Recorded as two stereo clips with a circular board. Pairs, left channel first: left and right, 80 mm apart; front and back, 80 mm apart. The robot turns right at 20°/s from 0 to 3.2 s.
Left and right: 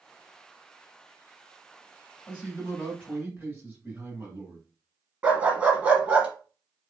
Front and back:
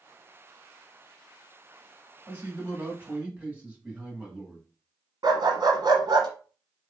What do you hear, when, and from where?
2.3 s a man speaking: 140° right, 1.9 m; by 4.7 s 120° right, 1.9 m
5.2 s a dog barking: 155° right, 1.0 m